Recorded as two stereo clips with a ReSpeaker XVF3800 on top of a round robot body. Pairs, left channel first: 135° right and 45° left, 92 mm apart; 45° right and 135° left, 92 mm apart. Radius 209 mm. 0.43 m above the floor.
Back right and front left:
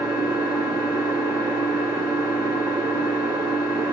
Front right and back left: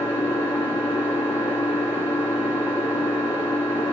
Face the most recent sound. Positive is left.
turn(degrees=-5)